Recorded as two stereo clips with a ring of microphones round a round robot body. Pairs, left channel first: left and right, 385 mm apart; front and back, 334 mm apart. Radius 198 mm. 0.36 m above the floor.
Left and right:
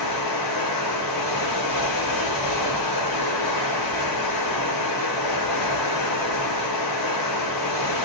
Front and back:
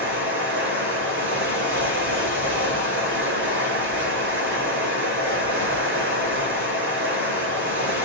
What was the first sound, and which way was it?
Running water, 125° left.